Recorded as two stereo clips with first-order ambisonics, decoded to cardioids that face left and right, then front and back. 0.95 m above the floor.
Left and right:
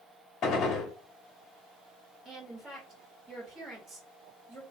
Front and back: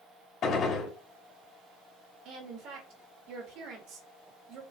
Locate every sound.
0.4 s a gunshot: 45° left, 1.0 m
2.2 s a woman speaking: 155° right, 1.5 m